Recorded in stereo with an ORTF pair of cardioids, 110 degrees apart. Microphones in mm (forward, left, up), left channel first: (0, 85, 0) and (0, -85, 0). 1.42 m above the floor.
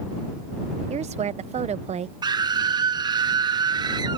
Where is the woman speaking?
40° right.